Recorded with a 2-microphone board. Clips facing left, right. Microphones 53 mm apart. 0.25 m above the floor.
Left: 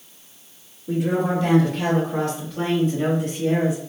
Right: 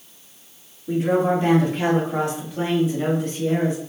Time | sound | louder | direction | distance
0.9 | a woman speaking | right 3 dB | 40° right (ahead or behind) | 1.7 m